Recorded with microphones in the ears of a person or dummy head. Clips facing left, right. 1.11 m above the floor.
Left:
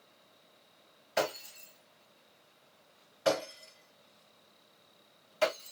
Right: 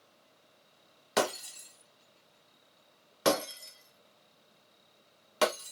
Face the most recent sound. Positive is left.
turn(degrees=-75)  # may be behind; listen again after turning